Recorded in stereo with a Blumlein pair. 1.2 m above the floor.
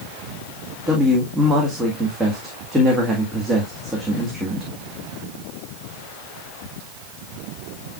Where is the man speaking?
15° right, 1.7 m.